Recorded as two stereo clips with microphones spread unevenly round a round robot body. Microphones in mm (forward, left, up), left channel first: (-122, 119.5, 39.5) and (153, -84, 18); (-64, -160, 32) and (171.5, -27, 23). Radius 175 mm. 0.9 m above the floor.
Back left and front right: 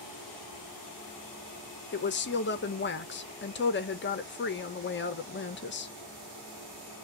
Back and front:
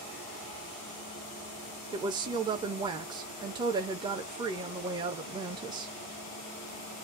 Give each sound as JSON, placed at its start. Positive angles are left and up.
{"t": 1.9, "sound": "a woman speaking", "azimuth_deg": 95, "distance_m": 0.9}